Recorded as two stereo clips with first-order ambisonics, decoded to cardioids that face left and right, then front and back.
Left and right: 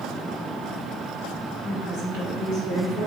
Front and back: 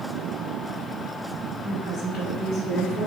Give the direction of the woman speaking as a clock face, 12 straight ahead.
2 o'clock.